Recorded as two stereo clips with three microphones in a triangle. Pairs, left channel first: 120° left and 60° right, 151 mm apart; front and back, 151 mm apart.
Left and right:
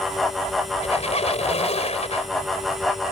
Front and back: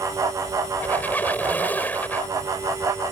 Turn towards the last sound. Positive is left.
turn(degrees=80)